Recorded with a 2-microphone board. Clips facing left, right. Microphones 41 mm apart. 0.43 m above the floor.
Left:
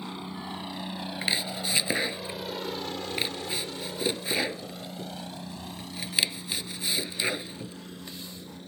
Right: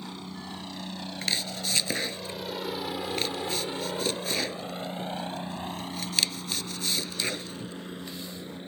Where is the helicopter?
20° left (ahead or behind); by 8.7 s 30° right (ahead or behind).